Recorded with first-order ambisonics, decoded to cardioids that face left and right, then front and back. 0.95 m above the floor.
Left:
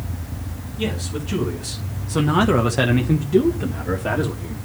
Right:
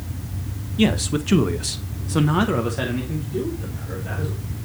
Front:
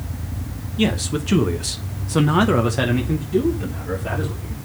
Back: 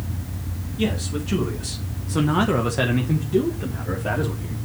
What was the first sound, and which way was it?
A man speaking, 60° right.